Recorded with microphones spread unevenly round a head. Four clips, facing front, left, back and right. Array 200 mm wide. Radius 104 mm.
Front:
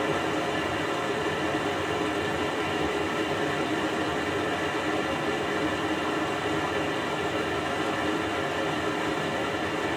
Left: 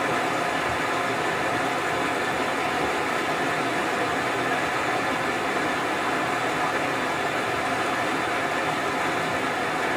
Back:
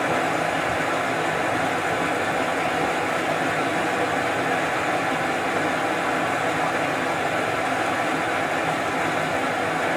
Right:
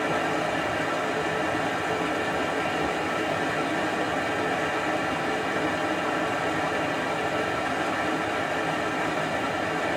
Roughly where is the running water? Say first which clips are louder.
Left 1 dB, back 4 dB; behind.